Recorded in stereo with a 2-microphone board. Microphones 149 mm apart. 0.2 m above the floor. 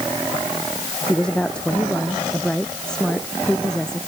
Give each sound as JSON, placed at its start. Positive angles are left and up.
{"t": 1.1, "sound": "a woman speaking", "side_deg": 5}